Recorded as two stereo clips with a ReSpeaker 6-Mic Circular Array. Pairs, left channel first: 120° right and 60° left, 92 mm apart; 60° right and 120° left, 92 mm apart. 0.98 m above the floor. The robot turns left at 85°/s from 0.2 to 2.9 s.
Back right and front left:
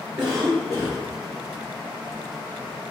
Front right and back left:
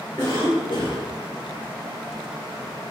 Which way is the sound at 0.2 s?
10° left.